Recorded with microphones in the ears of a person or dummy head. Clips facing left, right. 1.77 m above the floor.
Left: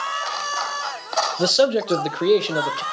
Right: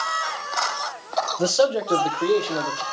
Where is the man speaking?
20° left (ahead or behind), 1.0 m; by 2.8 s 45° left (ahead or behind), 1.6 m.